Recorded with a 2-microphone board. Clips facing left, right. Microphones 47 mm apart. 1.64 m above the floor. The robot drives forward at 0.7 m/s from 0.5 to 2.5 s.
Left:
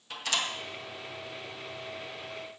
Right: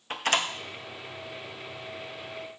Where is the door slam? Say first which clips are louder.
Right 5 dB; 45° right (ahead or behind), 0.8 m.